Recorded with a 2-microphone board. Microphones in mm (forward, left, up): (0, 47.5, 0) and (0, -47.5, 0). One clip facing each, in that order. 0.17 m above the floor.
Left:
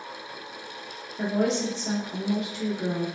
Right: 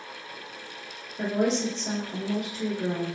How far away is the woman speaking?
About 1.8 m.